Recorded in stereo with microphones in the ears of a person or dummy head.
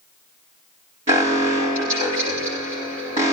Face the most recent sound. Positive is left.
turn(degrees=-45)  # may be behind; listen again after turning